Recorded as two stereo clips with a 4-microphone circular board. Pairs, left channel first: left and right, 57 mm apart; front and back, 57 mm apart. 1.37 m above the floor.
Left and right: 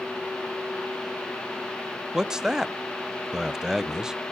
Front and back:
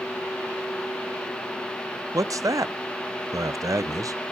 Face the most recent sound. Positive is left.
turn(degrees=-170)